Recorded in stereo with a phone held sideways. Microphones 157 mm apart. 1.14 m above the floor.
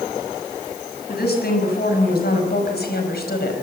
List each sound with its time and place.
1.1 s a woman speaking: 80° left, 6.5 m; by 3.6 s 85° left, 5 m